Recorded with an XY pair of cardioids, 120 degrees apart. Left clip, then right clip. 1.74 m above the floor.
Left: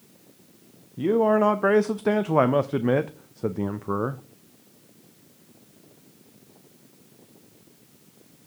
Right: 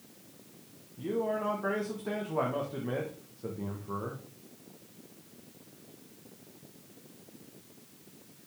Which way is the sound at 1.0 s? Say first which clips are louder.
Left 12 dB; 70° left.